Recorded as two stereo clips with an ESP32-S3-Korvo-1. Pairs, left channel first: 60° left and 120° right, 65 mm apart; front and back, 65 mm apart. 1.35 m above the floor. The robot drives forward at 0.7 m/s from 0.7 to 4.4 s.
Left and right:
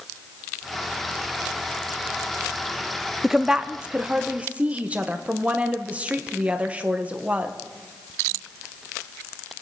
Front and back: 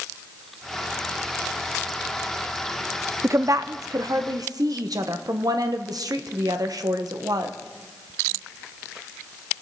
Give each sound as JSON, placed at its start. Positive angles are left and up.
{"t": 3.2, "sound": "a woman speaking", "azimuth_deg": 155, "distance_m": 0.6}